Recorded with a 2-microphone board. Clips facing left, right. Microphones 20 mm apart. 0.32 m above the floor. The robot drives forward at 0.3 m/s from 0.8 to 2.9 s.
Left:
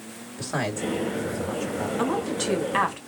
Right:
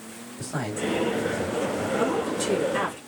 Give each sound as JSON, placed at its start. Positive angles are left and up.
{"t": 0.4, "sound": "a man speaking", "side_deg": 35, "distance_m": 2.0}
{"t": 2.0, "sound": "a woman speaking", "side_deg": 30, "distance_m": 2.0}